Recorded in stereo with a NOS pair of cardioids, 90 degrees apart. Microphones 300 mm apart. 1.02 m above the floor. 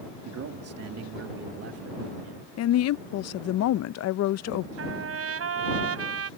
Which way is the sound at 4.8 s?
50° right.